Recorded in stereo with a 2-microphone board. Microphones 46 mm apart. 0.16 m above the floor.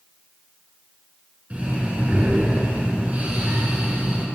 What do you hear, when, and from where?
1.5 s breathing: 30° right (ahead or behind), 1.9 m